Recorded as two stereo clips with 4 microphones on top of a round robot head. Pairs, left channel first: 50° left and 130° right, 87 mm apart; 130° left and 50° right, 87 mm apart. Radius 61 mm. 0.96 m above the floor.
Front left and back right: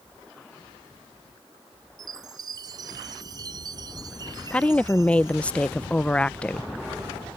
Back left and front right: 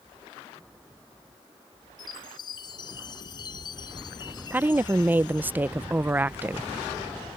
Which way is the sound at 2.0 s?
Straight behind.